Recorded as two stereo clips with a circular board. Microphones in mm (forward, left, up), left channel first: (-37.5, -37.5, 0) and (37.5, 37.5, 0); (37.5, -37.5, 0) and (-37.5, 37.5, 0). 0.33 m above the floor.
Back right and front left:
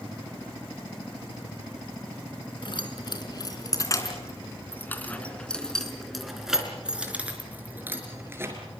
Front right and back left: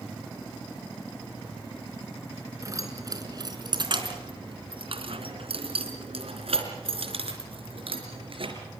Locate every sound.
2.6 s keys jangling: 170° right, 3.5 m; by 8.6 s 110° left, 5 m